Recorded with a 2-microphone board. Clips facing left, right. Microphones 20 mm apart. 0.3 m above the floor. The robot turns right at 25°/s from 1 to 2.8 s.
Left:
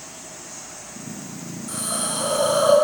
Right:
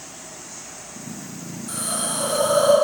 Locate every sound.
1.7 s a hiss: 5° left (ahead or behind), 3.5 m; by 2.7 s 30° left (ahead or behind), 3.5 m